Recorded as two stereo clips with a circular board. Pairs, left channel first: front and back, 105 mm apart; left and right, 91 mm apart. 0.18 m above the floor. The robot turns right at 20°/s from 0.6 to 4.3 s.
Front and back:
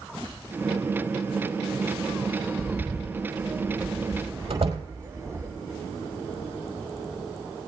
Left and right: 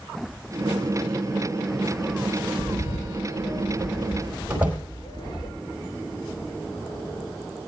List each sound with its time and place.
2.6 s a bird: 85° left, 1.7 m; by 5.5 s 120° left, 1.7 m
4.5 s a door slam: 165° right, 4 m